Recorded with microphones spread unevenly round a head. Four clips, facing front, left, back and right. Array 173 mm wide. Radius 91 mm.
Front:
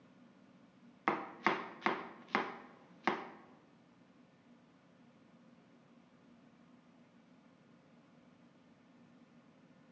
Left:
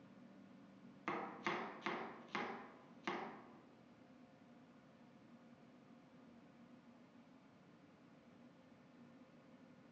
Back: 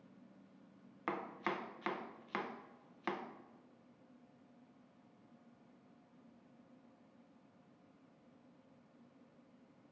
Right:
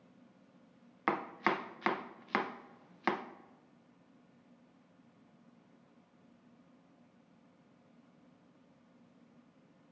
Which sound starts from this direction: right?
Chopping, at 1.1 s.